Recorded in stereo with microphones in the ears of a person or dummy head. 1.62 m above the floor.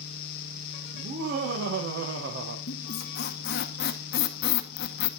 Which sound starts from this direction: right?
Laughter, at 0.9 s.